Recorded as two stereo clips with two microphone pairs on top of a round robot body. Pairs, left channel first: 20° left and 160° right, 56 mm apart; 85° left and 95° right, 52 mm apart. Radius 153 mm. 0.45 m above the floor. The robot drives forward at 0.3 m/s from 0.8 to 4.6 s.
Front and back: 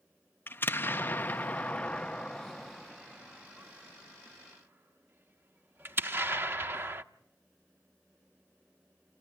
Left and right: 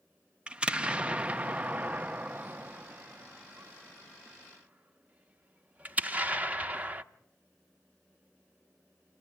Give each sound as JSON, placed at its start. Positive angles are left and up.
{"t": 0.5, "sound": "an explosion", "azimuth_deg": -35, "distance_m": 0.9}